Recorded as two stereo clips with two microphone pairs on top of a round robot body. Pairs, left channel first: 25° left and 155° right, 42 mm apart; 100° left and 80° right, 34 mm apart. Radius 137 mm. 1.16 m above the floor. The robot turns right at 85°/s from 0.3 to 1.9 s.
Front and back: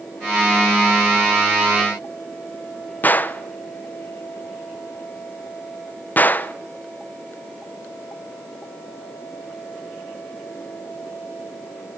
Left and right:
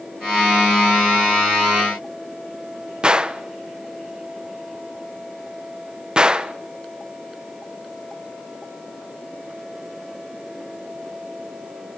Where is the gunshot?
20° right, 1.3 m.